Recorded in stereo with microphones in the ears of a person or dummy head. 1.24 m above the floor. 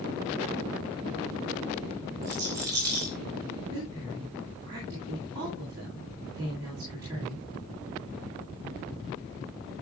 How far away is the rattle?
About 8.5 m.